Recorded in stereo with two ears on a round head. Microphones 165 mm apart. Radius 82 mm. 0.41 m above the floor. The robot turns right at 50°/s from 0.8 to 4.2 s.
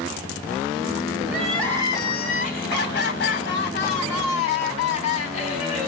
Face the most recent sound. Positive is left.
turn(degrees=140)